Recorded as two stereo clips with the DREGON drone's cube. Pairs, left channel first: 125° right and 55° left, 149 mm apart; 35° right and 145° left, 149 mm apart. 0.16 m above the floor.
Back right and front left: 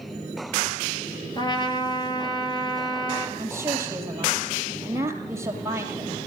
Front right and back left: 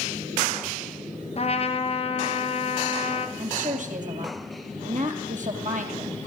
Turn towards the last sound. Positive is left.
turn(degrees=125)